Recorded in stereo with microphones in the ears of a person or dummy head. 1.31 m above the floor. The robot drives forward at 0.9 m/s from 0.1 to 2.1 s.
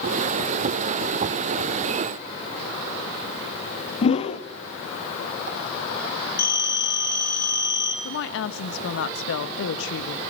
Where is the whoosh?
40° left (ahead or behind), 1.3 m.